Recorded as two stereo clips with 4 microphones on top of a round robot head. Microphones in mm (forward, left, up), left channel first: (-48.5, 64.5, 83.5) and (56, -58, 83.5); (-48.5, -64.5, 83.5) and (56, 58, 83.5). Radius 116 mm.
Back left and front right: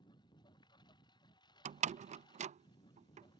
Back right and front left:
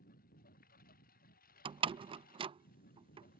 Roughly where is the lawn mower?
Behind.